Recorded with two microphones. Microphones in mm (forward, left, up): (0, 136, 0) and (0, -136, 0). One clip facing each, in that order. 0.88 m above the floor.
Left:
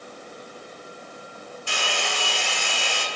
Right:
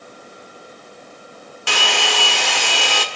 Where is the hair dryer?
80° right, 1.7 m.